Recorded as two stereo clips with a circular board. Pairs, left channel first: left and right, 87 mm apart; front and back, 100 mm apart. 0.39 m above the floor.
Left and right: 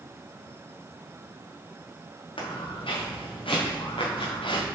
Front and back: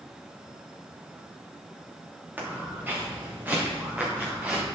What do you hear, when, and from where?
2.4 s footsteps: 105° left, 4 m; by 4.7 s 100° left, 2.5 m